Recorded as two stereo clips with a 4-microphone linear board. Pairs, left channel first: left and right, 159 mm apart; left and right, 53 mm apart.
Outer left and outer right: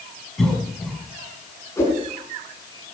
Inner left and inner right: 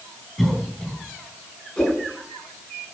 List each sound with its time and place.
0.4 s a cough: centre (ahead or behind), 5 m
1.8 s a whoosh: 15° left (ahead or behind), 6 m